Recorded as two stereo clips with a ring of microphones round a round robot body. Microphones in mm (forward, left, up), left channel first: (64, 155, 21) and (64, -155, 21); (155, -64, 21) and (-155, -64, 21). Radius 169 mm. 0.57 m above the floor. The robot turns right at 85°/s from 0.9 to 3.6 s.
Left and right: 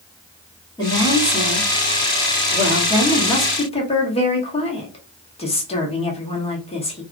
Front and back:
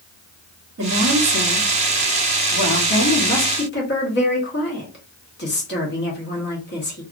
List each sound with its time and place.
0.8 s a woman speaking: 160° left, 1.1 m; by 7.0 s 30° left, 1.1 m